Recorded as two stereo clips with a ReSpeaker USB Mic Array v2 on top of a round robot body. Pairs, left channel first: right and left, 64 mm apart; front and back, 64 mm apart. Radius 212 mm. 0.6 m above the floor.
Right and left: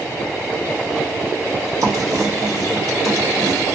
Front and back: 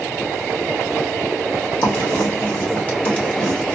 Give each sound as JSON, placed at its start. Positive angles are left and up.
{"t": 1.8, "sound": "writing", "azimuth_deg": 65, "distance_m": 1.7}